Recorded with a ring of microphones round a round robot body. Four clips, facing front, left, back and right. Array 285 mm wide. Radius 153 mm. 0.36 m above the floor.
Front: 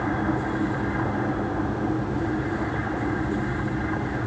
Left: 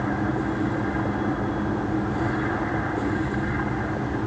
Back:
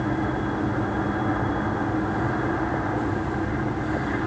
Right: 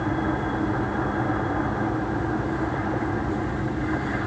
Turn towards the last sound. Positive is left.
No sound to turn to.